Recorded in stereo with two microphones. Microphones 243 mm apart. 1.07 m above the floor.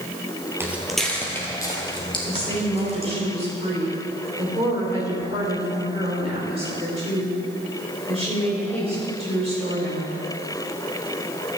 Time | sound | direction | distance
0.6 | footsteps | 10° right (ahead or behind) | 1.3 m
2.2 | a woman speaking | 25° right (ahead or behind) | 3.5 m